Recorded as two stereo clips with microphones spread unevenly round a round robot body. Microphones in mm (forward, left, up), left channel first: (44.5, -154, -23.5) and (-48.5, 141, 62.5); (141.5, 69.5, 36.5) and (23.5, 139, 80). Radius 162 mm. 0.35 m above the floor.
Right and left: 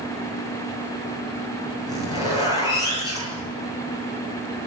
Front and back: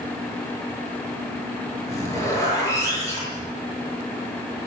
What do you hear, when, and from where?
1.9 s a zipper: 145° right, 9 m